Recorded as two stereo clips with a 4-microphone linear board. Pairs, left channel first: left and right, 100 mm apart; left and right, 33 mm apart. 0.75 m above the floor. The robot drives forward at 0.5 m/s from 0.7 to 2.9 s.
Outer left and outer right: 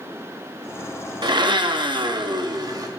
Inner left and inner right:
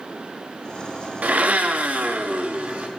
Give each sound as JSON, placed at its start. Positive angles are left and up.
{"t": 1.2, "sound": "a blender", "side_deg": -50, "distance_m": 0.8}